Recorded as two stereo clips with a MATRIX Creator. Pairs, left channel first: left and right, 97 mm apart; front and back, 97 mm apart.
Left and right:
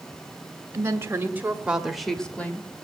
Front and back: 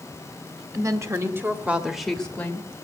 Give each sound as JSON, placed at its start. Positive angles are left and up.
{"t": 0.7, "sound": "a woman speaking", "azimuth_deg": -140, "distance_m": 1.9}